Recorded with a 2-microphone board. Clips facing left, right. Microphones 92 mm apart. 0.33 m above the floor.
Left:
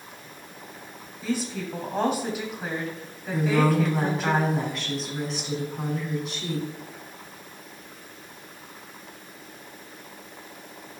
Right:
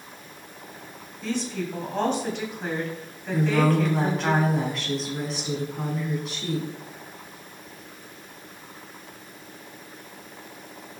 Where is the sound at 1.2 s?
10° left (ahead or behind), 2.5 m.